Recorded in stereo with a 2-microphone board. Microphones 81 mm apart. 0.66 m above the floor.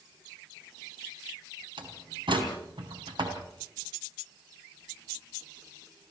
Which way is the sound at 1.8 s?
85° right.